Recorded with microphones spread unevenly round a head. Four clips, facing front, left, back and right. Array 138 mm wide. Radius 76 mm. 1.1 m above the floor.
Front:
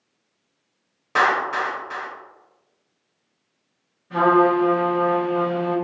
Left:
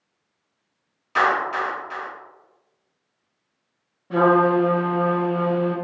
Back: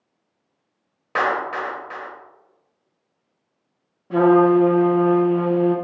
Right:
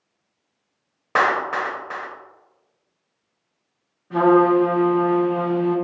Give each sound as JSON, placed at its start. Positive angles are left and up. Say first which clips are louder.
{"t": 1.1, "sound": "a clap", "louder": "right 1 dB, front 2 dB", "azimuth_deg": -105, "distance_m": 0.7}
{"t": 4.1, "sound": "a trumpet", "louder": "right 2 dB, back 3 dB", "azimuth_deg": 160, "distance_m": 0.9}